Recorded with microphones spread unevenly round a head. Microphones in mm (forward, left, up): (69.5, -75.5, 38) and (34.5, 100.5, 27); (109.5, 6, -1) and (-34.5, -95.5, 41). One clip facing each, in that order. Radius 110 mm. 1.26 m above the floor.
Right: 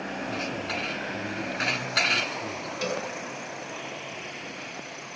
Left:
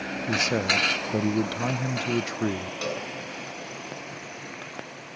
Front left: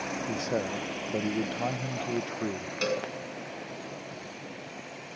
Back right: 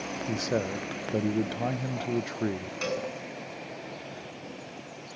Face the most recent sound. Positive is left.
turn(degrees=-10)